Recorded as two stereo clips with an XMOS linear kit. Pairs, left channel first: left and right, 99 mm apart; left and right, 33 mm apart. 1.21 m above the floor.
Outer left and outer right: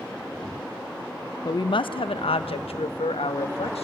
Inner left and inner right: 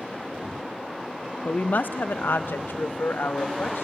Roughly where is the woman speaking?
Left.